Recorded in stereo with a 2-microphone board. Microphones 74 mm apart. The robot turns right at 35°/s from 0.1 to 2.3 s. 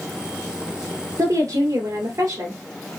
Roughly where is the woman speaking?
Right.